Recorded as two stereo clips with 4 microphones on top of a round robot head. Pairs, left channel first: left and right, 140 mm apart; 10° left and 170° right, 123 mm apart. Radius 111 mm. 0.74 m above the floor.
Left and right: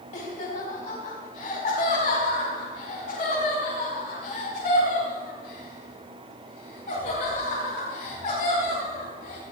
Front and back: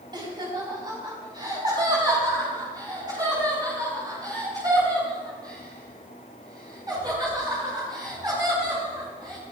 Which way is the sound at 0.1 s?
135° left.